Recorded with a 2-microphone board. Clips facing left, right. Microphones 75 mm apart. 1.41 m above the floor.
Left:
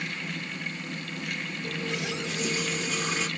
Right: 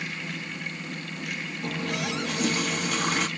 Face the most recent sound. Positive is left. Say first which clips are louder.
# right 3 dB
turn(degrees=-60)  # may be behind; listen again after turning